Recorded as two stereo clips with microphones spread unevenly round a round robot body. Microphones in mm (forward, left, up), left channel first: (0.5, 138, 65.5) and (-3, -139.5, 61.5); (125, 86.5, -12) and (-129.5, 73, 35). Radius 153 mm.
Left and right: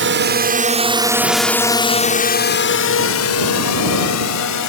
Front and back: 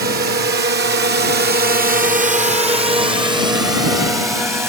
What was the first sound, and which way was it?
A drone, 120° right.